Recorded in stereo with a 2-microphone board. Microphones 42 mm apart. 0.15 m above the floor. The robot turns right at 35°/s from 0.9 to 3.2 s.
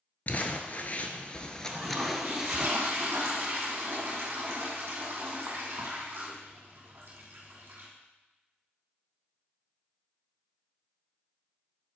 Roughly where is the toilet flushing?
Behind right.